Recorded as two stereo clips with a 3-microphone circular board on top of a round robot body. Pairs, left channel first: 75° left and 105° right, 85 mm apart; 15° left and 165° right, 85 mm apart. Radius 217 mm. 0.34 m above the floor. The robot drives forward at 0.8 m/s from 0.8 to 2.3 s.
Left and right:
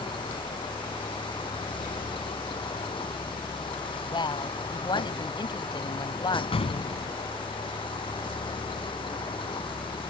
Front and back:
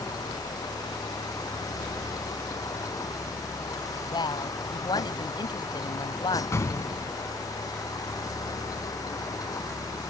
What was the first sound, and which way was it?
A vehicle, 60° left.